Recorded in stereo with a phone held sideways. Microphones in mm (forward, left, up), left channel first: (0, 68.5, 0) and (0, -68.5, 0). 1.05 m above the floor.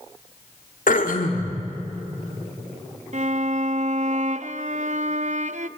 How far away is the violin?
About 0.6 m.